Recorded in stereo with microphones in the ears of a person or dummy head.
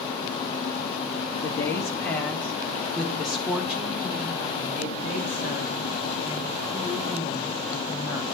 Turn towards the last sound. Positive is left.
turn(degrees=-20)  # may be behind; listen again after turning